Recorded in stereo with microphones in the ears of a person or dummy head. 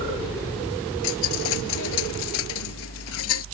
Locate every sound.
1.0 s a dropped coin: 70° left (ahead or behind)